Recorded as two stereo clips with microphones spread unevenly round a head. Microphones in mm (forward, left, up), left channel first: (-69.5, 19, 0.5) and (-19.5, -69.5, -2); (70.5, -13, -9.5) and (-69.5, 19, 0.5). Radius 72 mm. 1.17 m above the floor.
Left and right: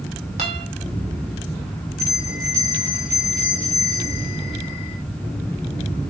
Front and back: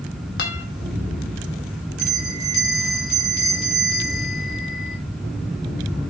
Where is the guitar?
10° right, 2 m.